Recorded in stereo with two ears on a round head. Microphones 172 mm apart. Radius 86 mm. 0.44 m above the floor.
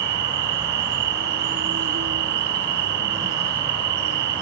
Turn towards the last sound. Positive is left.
turn(degrees=-60)  # may be behind; listen again after turning